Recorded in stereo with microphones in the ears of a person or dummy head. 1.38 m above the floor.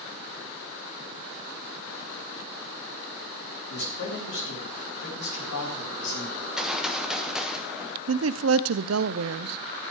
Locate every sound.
3.7 s a man speaking: 55° left (ahead or behind), 3.5 m; by 6.3 s 85° left, 5.5 m
6.4 s a gunshot: centre (ahead or behind), 0.7 m
8.1 s a woman speaking: 65° right (ahead or behind), 0.5 m